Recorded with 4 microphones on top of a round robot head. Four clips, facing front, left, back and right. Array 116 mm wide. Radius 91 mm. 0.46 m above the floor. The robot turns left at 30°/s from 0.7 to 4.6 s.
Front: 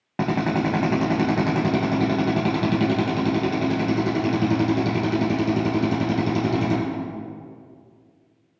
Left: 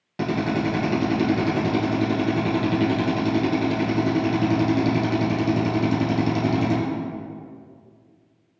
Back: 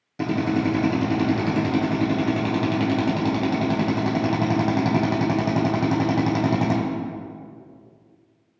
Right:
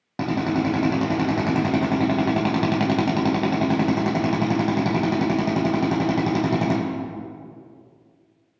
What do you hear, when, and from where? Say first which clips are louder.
0.2 s a drill: right 1 dB, even; 25° right, 1.5 m; by 6.8 s 140° right, 1.5 m